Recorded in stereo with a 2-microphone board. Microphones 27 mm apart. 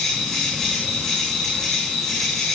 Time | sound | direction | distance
0.0 | an insect | 20° left (ahead or behind) | 8 m